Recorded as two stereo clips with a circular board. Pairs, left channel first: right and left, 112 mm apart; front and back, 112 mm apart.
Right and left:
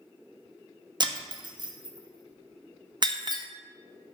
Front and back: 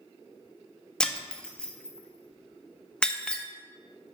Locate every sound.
1.0 s breaking glass: 80° left, 0.9 m